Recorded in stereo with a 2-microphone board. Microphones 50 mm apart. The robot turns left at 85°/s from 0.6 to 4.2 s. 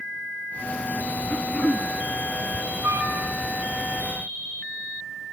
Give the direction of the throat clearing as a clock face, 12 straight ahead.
10 o'clock.